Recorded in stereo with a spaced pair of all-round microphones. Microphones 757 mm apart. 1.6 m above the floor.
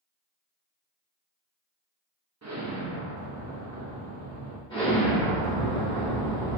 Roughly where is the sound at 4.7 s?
Centre.